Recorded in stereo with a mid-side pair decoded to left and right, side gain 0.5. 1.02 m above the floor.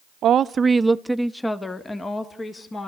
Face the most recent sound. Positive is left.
turn(degrees=30)